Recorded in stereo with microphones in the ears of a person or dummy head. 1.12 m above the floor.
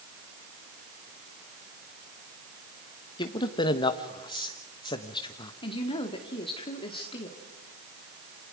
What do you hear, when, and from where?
3.2 s a man speaking: 25° left (ahead or behind), 1.1 m
5.6 s a woman speaking: 30° left (ahead or behind), 1.9 m